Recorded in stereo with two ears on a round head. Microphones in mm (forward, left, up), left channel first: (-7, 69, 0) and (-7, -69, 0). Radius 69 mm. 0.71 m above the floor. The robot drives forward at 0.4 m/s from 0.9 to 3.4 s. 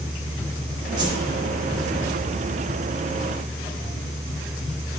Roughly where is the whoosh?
Right.